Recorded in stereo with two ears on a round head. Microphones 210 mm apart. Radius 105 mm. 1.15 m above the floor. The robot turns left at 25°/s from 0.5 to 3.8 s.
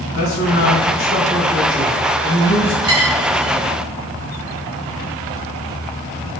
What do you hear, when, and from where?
0.1 s a man speaking: 65° left, 1.7 m; by 2.7 s 10° left, 1.7 m
2.8 s a dropped coin: 20° right (ahead or behind), 0.8 m; by 3.5 s 30° right (ahead or behind), 0.8 m